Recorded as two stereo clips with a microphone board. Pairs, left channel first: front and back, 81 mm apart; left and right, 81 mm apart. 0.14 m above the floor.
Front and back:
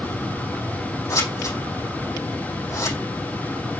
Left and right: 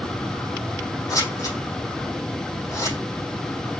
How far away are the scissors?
About 4.5 m.